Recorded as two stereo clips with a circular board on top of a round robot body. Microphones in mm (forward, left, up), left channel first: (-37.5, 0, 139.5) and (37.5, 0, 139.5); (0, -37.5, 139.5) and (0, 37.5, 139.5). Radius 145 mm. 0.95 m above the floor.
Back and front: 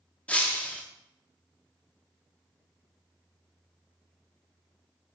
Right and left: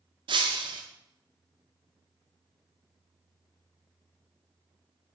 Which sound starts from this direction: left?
Breaking glass, at 0.3 s.